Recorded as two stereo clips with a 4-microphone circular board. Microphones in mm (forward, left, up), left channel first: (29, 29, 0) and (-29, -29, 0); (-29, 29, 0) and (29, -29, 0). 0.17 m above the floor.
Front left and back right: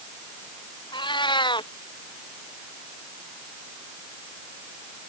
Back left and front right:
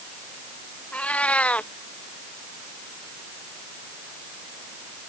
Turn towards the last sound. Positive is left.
turn(degrees=60)